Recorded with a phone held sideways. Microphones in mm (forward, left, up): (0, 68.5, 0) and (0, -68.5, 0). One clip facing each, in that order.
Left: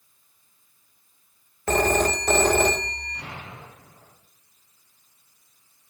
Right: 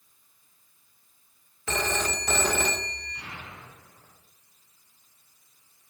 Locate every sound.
1.7 s a phone ringing: 45° left (ahead or behind), 0.6 m
3.1 s an explosion: 80° left, 4.5 m